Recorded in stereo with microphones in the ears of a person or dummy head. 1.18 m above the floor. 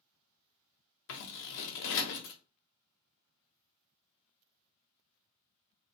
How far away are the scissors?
About 0.6 m.